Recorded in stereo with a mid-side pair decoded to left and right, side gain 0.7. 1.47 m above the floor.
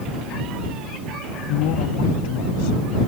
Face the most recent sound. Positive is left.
turn(degrees=70)